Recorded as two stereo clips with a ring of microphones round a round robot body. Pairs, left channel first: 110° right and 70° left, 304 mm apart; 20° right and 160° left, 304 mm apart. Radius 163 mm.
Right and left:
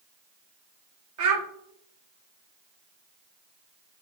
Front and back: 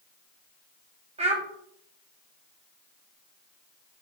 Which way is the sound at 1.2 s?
90° left.